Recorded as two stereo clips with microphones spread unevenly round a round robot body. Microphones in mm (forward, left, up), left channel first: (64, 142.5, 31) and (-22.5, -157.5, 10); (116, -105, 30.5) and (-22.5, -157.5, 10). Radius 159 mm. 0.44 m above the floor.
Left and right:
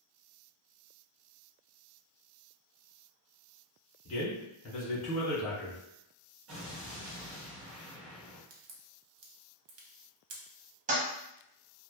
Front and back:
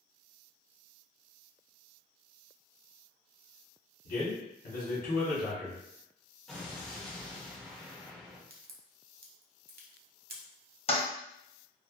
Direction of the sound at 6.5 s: 70° right.